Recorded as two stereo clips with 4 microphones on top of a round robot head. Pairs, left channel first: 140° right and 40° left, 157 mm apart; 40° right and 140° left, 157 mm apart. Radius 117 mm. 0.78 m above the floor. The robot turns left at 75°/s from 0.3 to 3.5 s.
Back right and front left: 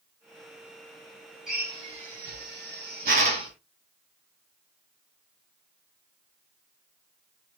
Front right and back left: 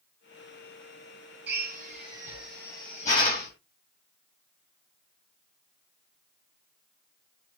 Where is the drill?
130° left, 3 m; by 3.5 s 25° right, 3 m.